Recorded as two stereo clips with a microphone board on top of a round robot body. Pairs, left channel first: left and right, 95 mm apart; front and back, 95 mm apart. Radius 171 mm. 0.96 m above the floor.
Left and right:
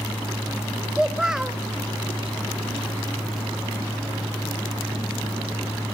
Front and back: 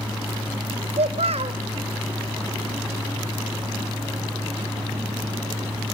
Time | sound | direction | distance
0.9 | a child speaking | 175° right | 0.8 m